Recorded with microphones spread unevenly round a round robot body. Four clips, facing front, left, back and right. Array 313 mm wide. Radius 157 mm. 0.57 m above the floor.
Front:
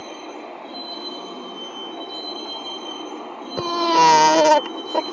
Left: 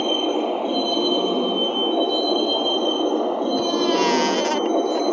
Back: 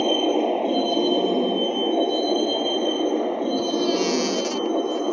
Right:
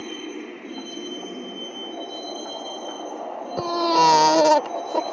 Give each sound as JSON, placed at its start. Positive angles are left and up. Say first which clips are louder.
{"t": 0.0, "sound": "a vehicle", "louder": "left 12 dB, back 14 dB", "azimuth_deg": 155}
{"t": 3.6, "sound": "a baby crying", "louder": "right 5 dB, front 10 dB", "azimuth_deg": -35}